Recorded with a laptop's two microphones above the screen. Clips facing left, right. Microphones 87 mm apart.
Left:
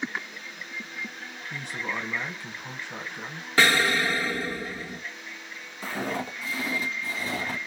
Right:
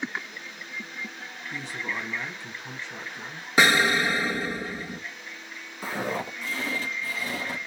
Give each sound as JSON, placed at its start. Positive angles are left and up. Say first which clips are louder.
{"t": 1.5, "sound": "a man speaking", "louder": "even", "side_deg": 55, "distance_m": 1.1}
{"t": 3.6, "sound": "an explosion", "louder": "right 1 dB", "side_deg": -20, "distance_m": 0.7}
{"t": 5.8, "sound": "footsteps", "louder": "right 1 dB", "side_deg": -15, "distance_m": 1.5}